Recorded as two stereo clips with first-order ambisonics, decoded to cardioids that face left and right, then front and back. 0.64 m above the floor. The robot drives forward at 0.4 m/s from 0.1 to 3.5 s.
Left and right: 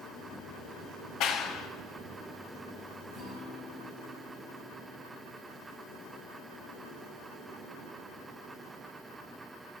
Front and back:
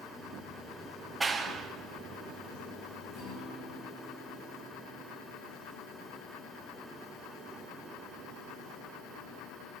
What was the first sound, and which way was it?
A clap, 100° left.